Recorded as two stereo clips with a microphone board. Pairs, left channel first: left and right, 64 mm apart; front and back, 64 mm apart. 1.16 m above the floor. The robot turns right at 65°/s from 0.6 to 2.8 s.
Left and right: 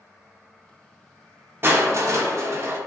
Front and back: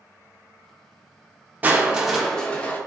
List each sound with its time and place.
1.6 s crushing: 125° right, 0.5 m; by 2.8 s 50° right, 0.5 m